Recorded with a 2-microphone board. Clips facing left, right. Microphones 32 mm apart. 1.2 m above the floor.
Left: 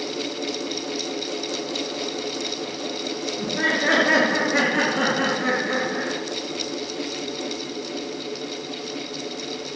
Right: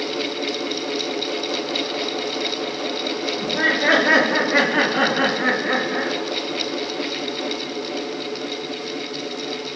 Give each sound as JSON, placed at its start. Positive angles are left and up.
{"t": 3.4, "sound": "laughter", "side_deg": -20, "distance_m": 3.5}